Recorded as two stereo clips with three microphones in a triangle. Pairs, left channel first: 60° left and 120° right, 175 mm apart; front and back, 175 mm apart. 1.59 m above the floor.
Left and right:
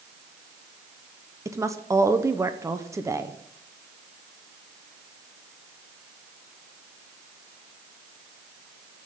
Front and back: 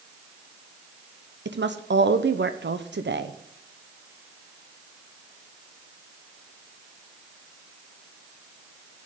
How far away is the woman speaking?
About 0.8 m.